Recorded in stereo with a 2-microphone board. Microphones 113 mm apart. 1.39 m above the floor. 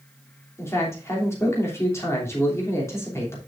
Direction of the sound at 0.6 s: 25° left (ahead or behind).